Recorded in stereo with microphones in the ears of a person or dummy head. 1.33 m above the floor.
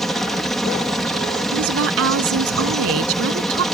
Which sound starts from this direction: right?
A woman speaking, at 1.5 s.